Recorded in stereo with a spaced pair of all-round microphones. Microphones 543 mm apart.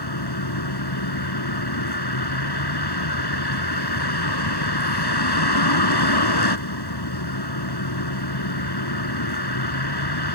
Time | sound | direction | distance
0.0 | a vehicle | 45° left (ahead or behind) | ?